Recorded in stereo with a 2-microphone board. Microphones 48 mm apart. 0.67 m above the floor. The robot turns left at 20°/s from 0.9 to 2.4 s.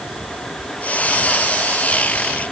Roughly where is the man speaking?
No man speaking in this recording.